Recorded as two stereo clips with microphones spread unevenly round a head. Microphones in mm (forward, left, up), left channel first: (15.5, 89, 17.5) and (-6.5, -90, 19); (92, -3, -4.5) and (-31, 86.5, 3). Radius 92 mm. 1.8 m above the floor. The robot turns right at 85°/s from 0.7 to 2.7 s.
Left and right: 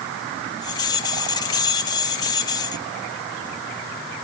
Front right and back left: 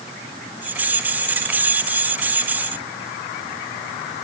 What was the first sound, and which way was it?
Only background noise.